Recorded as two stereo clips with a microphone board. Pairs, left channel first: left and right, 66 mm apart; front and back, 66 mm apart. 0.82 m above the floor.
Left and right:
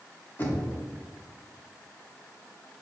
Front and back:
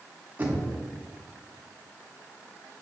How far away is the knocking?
About 0.8 m.